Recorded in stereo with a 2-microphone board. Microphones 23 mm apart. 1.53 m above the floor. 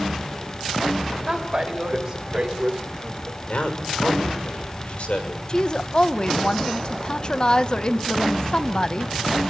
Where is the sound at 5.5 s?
40° left (ahead or behind), 1.2 m.